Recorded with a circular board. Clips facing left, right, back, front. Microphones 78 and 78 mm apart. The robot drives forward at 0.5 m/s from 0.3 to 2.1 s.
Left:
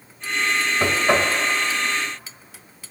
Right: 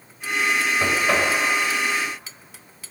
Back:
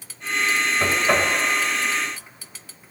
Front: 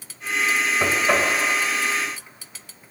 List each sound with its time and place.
0.8 s knocking: 55° left, 0.6 m; by 1.3 s 115° left, 0.6 m